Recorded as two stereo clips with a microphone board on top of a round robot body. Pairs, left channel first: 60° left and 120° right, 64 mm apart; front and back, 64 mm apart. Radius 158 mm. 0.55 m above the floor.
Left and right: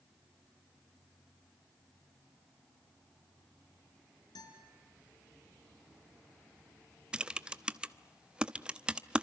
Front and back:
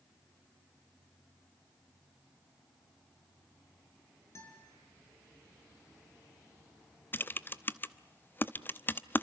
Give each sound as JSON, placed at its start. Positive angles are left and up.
{"t": 4.3, "sound": "a guitar", "azimuth_deg": 50, "distance_m": 5.5}
{"t": 7.1, "sound": "typing on a keyboard", "azimuth_deg": -50, "distance_m": 1.0}